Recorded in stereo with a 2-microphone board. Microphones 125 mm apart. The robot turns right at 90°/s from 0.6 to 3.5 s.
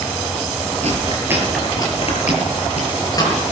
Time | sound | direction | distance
0.8 | chewing | 60° right (ahead or behind) | 6.5 m